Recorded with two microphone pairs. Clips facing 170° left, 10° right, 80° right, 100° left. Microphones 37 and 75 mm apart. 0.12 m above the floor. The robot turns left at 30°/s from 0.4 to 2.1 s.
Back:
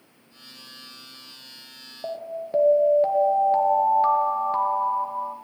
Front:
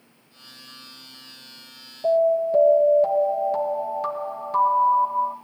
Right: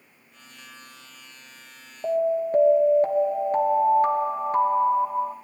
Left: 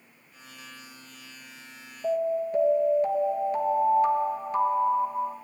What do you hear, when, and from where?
2.0 s an alarm: 115° right, 1.9 m